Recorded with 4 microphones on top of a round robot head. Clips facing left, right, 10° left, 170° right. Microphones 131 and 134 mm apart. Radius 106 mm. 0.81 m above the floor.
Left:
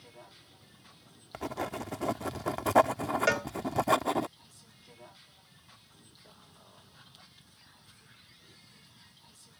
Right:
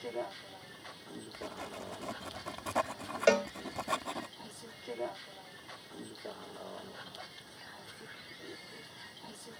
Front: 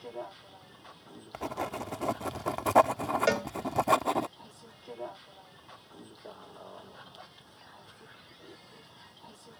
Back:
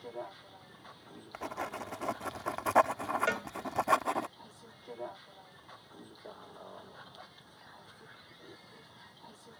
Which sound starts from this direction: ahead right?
A cowbell, at 3.3 s.